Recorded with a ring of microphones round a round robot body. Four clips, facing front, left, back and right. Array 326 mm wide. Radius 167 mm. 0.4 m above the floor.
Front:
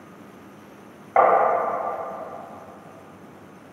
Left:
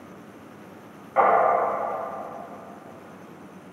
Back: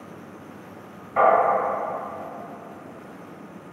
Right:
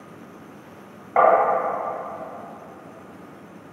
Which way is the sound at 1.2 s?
20° right.